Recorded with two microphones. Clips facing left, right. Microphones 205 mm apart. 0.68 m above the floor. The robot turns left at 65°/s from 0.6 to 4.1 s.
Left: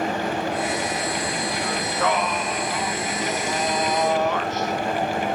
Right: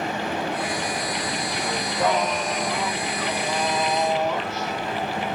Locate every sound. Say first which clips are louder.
1.6 s singing: right 2 dB; 5° right, 1.7 m; by 5.4 s 170° right, 1.7 m